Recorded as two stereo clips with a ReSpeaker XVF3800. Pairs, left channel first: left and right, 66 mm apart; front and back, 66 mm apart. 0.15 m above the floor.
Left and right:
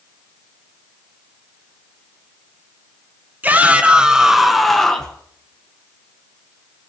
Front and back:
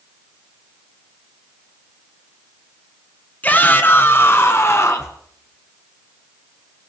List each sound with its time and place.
3.4 s a shout: 50° right, 1.6 m; by 5.2 s 15° left, 1.9 m